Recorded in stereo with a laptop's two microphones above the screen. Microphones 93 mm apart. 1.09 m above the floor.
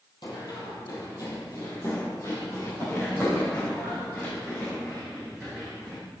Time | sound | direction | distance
0.2 | running footsteps | 55° left (ahead or behind) | 2 m